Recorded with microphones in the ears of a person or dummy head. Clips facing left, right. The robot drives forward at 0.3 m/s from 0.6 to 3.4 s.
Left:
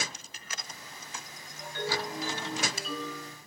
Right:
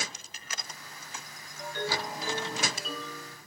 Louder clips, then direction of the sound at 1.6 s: Even; 45° right (ahead or behind).